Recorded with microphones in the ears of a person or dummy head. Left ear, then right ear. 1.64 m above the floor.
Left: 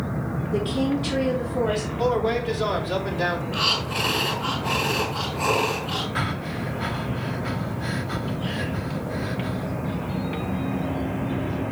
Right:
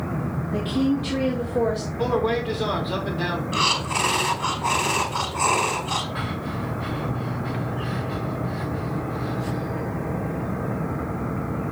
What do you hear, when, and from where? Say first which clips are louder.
0.5 s a woman speaking: even; 15° left (ahead or behind), 3 m; by 1.9 s 5° right (ahead or behind), 3.5 m
2.0 s a man speaking: even; 5° left (ahead or behind), 3 m
3.5 s breathing: right 4 dB; 50° right (ahead or behind), 2.0 m
6.2 s breathing: left 2 dB; 30° left (ahead or behind), 0.8 m